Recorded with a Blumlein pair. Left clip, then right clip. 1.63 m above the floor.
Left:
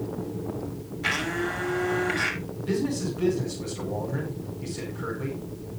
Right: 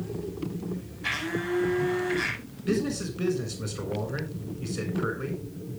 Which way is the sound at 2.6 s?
70° right.